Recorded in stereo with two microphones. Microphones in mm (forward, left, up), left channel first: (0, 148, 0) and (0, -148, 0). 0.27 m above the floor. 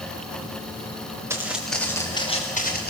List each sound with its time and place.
1.3 s footsteps: 10° right (ahead or behind), 3 m; by 2.9 s 35° left (ahead or behind), 3 m